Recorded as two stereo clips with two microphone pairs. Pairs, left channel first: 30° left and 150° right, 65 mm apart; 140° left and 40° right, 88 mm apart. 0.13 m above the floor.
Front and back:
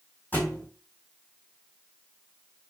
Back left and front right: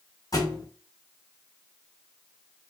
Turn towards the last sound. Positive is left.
turn(degrees=95)